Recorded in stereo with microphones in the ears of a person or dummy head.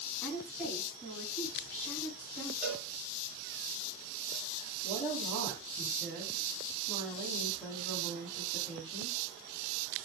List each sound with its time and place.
0.2 s a woman speaking: 10° left (ahead or behind), 7.5 m
2.6 s a cowbell: centre (ahead or behind), 7.5 m
4.8 s a woman speaking: centre (ahead or behind), 4.5 m